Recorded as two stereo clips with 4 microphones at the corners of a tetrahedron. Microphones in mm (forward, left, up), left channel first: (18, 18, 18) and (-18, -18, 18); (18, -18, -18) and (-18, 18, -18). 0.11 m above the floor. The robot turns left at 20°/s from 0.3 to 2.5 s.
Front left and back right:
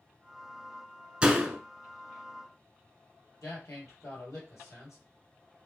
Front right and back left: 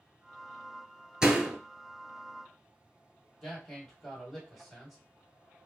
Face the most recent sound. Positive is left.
turn(degrees=35)